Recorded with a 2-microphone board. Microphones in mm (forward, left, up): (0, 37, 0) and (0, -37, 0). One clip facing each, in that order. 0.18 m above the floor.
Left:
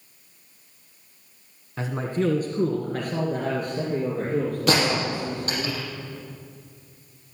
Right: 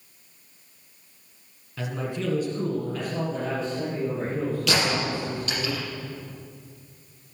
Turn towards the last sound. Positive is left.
turn(degrees=40)  # may be behind; listen again after turning